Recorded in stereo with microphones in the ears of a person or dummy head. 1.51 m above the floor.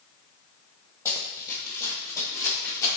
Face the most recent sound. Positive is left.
turn(degrees=15)  # may be behind; listen again after turning